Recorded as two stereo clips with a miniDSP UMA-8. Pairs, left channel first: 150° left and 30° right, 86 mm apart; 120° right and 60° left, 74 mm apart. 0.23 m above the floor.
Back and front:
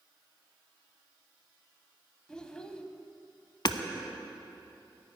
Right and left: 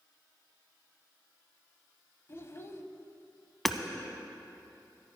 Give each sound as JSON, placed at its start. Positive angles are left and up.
{"t": 2.3, "sound": "a child speaking", "azimuth_deg": -135, "distance_m": 0.7}
{"t": 3.6, "sound": "hammering", "azimuth_deg": 155, "distance_m": 0.6}